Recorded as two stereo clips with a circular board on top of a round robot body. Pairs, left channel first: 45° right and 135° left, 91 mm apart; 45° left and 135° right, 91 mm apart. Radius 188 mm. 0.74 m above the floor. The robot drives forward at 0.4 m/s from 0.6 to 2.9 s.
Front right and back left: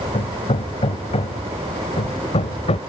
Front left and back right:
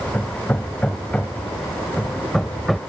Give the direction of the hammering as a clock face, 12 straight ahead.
1 o'clock.